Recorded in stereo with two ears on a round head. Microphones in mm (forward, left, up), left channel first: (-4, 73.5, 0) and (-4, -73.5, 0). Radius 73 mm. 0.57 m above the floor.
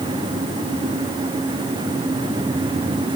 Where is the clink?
No clink in this recording.